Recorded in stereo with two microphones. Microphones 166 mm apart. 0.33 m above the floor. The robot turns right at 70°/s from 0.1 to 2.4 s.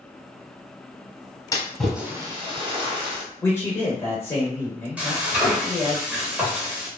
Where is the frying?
10° right (ahead or behind), 1.0 m.